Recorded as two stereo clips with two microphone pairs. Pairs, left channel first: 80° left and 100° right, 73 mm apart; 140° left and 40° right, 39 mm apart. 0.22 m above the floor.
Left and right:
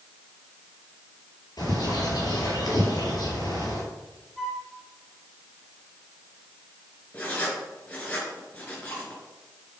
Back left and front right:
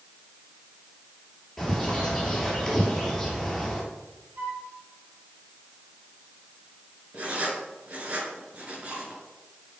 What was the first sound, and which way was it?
A bird, 55° left.